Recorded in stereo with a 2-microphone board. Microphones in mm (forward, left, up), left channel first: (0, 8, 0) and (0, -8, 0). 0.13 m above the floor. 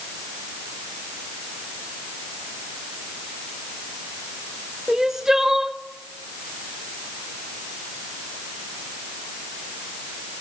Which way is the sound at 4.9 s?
25° right (ahead or behind).